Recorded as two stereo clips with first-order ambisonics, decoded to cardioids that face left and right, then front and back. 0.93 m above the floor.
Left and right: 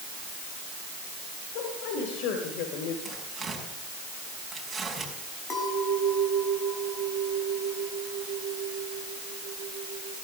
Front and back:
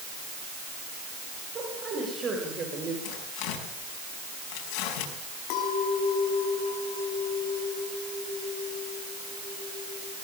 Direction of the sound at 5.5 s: 20° left.